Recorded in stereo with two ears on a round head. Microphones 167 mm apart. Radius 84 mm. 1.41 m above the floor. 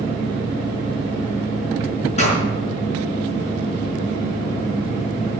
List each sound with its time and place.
2.2 s a pop: 40° left (ahead or behind), 5 m